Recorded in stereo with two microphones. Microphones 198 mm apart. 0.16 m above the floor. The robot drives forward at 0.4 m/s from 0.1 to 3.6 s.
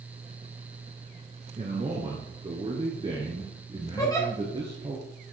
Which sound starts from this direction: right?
A man speaking, at 1.6 s.